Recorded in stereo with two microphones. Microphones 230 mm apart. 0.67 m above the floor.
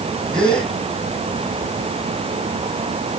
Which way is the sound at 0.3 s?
5° left (ahead or behind).